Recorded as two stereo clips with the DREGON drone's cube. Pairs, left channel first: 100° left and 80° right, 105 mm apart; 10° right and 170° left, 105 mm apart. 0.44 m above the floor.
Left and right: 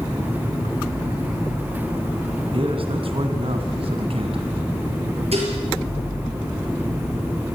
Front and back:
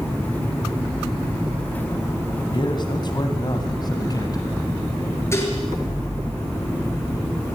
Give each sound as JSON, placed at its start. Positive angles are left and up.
{"t": 2.5, "sound": "a man speaking", "azimuth_deg": -55, "distance_m": 3.5}
{"t": 5.3, "sound": "dishes clattering", "azimuth_deg": -75, "distance_m": 6.0}